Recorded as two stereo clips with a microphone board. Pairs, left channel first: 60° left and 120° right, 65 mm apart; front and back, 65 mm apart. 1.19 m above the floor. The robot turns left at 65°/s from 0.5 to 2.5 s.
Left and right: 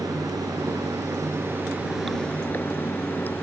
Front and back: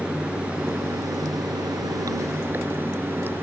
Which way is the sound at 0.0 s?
110° right.